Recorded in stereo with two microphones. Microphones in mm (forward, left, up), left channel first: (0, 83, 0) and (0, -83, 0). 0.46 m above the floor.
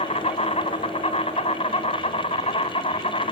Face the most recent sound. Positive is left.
turn(degrees=40)  # may be behind; listen again after turning